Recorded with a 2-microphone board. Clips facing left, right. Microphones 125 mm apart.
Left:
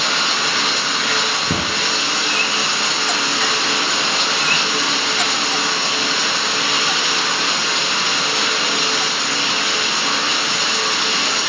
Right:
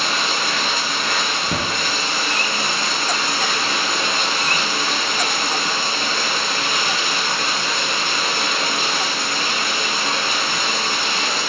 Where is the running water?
80° left, 5.5 m.